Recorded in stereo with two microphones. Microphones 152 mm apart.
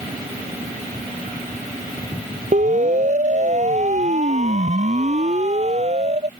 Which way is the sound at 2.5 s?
55° right (ahead or behind).